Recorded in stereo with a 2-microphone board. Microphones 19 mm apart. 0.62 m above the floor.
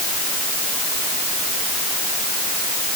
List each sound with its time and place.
Only background noise.